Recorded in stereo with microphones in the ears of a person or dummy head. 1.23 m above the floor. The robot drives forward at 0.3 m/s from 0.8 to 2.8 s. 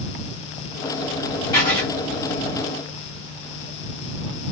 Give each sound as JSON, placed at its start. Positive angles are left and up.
{"t": 1.5, "sound": "writing", "side_deg": 30, "distance_m": 1.1}